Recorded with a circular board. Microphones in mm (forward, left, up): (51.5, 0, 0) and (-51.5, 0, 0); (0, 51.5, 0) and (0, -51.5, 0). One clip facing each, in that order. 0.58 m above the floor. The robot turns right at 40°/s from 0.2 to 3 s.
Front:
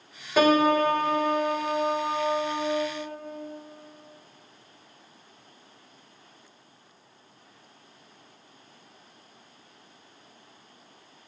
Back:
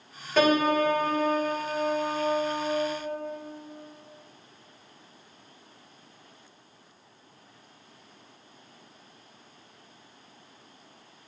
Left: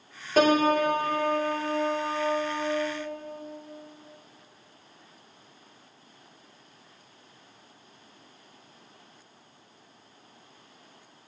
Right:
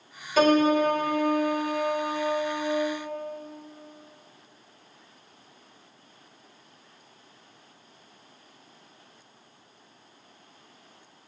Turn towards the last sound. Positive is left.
turn(degrees=180)